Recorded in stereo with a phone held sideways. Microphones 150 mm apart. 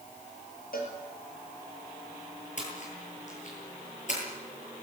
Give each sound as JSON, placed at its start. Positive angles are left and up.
{"t": 0.7, "sound": "a cowbell", "side_deg": 75, "distance_m": 6.0}
{"t": 2.6, "sound": "a splash", "side_deg": 55, "distance_m": 9.0}